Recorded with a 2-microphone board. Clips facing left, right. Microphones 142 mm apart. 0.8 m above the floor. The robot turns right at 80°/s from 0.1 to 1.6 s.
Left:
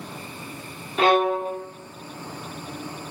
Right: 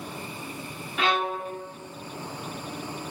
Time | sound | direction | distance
1.0 | a violin | 35° left | 0.8 m